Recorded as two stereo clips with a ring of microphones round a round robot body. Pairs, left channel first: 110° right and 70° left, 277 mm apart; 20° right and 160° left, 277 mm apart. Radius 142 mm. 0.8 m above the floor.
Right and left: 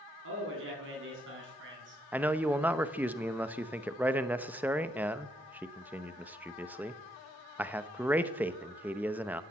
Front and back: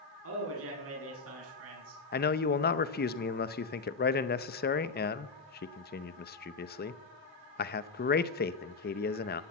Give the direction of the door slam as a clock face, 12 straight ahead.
I don't hear a door slam.